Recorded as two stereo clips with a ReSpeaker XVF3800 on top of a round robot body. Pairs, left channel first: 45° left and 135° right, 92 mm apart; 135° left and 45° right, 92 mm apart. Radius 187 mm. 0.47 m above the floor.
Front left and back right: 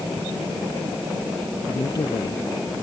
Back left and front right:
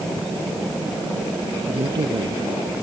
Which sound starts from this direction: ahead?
A man speaking, at 1.7 s.